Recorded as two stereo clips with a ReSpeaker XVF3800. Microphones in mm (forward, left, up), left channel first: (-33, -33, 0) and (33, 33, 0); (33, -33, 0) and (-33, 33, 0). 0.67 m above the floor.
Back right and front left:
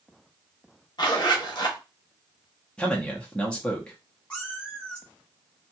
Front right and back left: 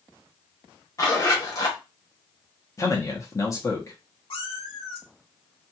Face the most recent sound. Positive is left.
turn(degrees=-55)